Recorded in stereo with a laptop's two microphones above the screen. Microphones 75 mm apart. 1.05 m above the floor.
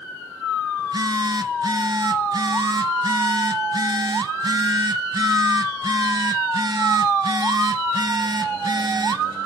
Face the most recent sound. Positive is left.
turn(degrees=-55)  # may be behind; listen again after turning